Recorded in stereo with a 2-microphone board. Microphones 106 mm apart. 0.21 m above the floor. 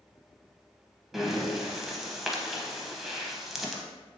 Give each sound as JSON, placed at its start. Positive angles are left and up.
{"t": 1.1, "sound": "breathing", "side_deg": 0, "distance_m": 0.6}